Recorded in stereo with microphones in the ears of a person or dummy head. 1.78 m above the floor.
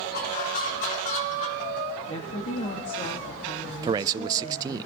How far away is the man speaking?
About 0.6 m.